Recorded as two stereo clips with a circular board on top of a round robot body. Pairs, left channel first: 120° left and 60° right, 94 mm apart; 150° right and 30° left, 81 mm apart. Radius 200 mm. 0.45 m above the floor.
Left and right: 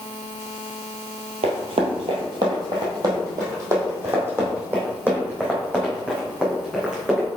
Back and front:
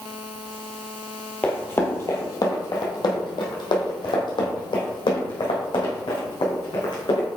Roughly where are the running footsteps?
Right.